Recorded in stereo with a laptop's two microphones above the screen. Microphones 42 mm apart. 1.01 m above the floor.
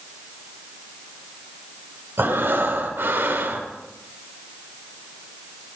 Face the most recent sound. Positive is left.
turn(degrees=-70)  # may be behind; listen again after turning